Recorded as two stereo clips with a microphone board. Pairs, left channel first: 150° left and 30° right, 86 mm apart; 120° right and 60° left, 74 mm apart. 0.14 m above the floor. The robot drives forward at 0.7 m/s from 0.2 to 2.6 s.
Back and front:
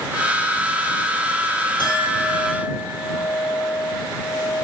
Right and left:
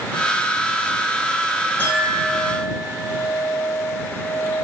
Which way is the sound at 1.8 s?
175° left.